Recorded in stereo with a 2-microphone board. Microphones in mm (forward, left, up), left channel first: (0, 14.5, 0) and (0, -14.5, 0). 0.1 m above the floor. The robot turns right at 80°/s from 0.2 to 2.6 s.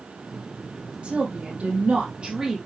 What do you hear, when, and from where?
1.0 s a woman speaking: 135° right, 4 m; by 2.6 s 10° right, 4 m